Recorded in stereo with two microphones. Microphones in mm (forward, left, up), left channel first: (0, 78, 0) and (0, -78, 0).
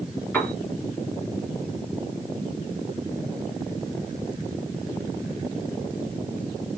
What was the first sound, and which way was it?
A piano, 10° left (ahead or behind).